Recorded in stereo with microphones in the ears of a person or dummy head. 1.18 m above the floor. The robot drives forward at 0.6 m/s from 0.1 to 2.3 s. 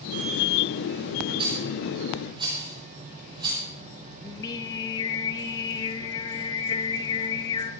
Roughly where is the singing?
Left.